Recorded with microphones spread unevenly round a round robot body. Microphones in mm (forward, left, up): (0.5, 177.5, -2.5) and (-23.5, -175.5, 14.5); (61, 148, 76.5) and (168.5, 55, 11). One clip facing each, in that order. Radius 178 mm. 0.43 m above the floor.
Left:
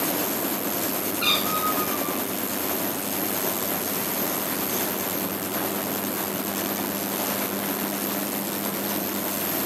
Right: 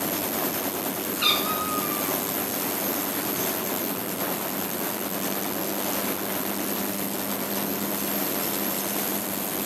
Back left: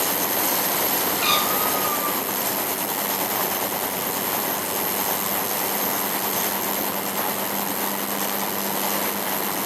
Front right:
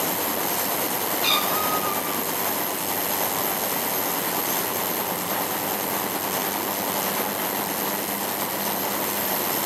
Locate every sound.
1.2 s a cat meowing: 165° right, 5 m